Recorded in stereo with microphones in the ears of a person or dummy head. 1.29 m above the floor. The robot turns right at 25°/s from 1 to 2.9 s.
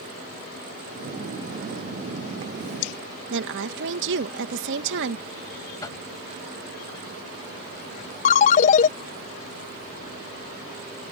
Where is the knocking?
20° left (ahead or behind).